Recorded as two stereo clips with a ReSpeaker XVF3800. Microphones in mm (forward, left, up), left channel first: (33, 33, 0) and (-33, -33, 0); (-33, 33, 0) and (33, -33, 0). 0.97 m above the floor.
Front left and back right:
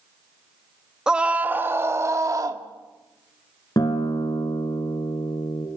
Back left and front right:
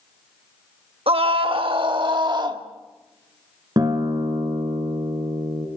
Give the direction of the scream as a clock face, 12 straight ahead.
2 o'clock.